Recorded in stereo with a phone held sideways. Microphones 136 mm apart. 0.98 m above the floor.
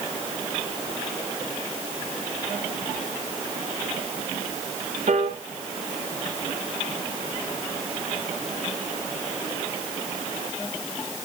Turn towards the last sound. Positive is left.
turn(degrees=-55)  # may be behind; listen again after turning